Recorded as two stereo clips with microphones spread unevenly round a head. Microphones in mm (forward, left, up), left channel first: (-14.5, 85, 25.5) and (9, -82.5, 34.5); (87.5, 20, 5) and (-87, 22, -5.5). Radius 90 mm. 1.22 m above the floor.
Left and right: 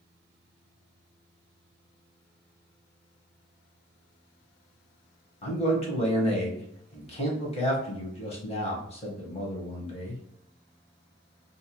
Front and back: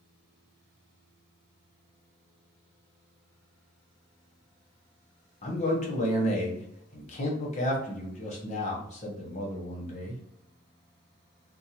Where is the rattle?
No rattle in this recording.